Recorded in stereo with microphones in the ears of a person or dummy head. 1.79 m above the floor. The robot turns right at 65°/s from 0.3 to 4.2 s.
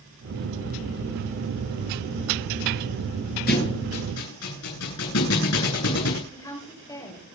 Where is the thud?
50° left (ahead or behind), 9.5 m; by 6.2 s 80° left, 9.5 m.